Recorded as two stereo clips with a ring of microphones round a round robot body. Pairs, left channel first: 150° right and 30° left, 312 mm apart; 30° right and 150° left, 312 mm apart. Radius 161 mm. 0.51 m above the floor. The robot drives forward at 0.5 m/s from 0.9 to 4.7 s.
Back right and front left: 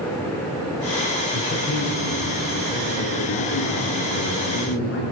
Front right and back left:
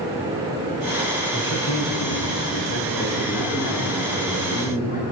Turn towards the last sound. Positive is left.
turn(degrees=-95)